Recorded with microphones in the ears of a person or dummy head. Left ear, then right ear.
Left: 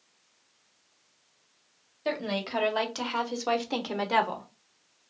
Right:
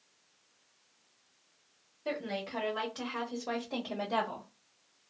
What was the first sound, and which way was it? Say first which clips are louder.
A woman speaking: left 5 dB; 50° left (ahead or behind).